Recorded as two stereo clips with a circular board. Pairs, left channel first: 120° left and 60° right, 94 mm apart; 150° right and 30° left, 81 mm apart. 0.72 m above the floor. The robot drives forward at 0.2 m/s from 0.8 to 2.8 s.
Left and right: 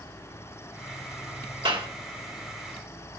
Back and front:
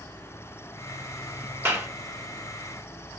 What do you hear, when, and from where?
1.6 s a clap: 35° right, 2 m